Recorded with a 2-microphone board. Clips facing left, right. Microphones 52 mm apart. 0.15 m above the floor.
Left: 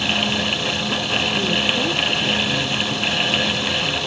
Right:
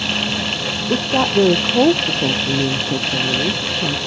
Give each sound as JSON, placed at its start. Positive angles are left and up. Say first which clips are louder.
{"t": 0.9, "sound": "a woman speaking", "louder": "right 9 dB", "side_deg": -75}